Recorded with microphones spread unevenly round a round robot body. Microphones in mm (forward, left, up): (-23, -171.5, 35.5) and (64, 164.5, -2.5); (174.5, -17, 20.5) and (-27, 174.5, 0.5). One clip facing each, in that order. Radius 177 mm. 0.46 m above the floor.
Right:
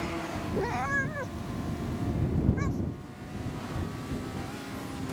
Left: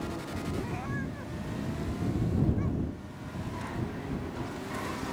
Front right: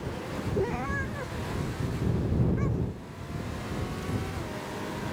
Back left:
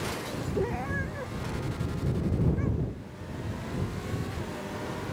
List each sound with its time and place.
0.6 s a cat meowing: 125° right